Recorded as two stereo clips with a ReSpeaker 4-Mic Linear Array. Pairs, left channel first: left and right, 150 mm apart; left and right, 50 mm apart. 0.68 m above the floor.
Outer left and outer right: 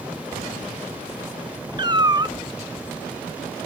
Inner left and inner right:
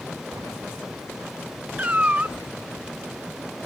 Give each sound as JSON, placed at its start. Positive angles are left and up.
{"t": 1.8, "sound": "a cat meowing", "side_deg": -30, "distance_m": 0.6}